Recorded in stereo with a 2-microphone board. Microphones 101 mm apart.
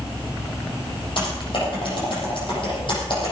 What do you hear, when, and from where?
1.2 s typing on a keyboard: 55° left (ahead or behind), 7.5 m